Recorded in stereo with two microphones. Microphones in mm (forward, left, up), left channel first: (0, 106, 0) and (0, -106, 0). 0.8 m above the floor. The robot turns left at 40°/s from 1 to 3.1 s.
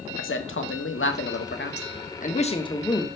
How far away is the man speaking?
About 1.2 m.